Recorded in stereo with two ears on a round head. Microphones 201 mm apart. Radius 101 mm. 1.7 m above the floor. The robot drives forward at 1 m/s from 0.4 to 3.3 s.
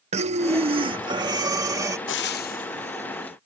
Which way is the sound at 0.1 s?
30° right (ahead or behind).